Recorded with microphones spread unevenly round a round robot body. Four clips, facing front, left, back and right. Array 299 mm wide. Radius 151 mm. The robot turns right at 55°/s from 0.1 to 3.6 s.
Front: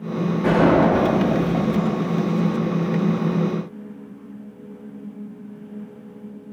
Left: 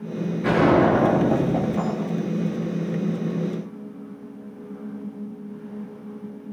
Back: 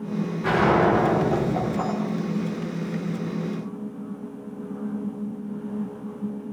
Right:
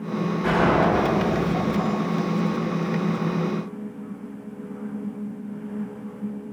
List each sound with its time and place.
0.4 s a gunshot: 15° left, 8.5 m; by 2.5 s 130° left, 8.5 m